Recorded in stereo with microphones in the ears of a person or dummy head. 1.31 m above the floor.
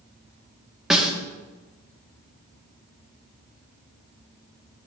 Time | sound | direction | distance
0.9 | a snare drum | centre (ahead or behind) | 1.5 m